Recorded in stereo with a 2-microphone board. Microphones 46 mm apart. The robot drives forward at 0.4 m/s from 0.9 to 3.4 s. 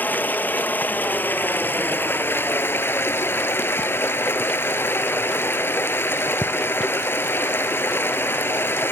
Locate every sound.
0.0 s running water: 40° left (ahead or behind), 1.5 m; by 8.9 s 60° left (ahead or behind), 1.1 m